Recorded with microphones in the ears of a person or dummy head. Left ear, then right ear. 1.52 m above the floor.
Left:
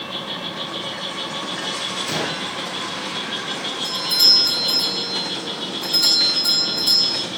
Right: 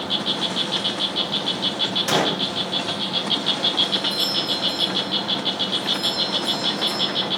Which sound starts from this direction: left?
A doorbell, at 3.8 s.